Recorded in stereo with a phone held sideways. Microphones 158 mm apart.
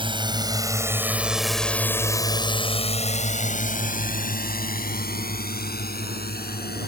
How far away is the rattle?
No rattle in this recording.